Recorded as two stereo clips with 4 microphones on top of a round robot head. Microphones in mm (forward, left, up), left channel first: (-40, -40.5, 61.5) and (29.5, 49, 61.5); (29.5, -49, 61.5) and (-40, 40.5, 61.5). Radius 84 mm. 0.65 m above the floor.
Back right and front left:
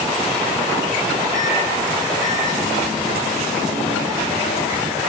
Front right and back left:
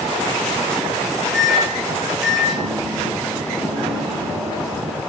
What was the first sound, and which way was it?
A microwave, 145° right.